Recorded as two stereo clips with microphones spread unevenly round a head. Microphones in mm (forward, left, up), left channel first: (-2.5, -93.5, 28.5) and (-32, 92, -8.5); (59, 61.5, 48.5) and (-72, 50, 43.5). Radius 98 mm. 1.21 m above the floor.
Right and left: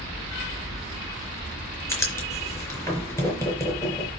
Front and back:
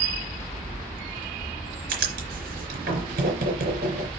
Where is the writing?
155° right, 3.5 m.